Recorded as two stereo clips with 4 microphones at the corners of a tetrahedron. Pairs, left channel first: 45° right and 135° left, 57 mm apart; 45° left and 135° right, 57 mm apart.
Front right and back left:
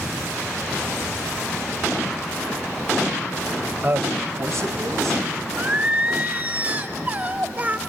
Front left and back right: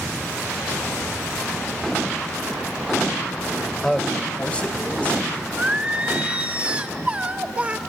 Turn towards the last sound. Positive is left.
turn(degrees=170)